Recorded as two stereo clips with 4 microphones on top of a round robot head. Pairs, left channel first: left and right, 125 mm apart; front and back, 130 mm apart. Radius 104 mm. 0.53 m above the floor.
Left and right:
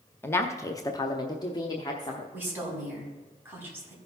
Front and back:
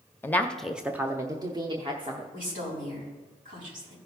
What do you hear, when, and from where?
0.2 s a woman speaking: 40° left, 0.7 m; by 2.2 s 140° left, 1.2 m
2.3 s a woman speaking: 165° right, 4.5 m